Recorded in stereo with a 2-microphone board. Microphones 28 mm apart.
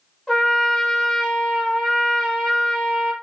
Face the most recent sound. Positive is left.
turn(degrees=25)  # may be behind; listen again after turning